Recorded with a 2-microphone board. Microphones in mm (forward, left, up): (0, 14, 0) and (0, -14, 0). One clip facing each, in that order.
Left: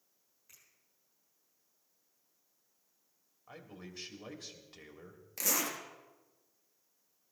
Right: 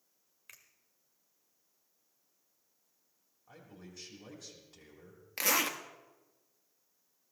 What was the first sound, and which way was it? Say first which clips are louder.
A finger snap: right 7 dB; 80° right.